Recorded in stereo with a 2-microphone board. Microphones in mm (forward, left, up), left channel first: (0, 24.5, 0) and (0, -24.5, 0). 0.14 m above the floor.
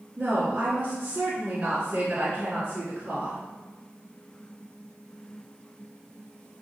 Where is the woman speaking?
30° right (ahead or behind), 1.3 m.